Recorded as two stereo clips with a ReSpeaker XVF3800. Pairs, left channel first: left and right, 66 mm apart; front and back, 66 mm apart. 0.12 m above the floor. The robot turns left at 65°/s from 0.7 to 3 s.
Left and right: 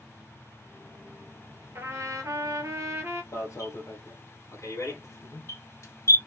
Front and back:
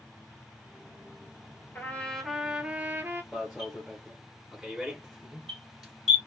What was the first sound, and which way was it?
A trumpet, 50° right.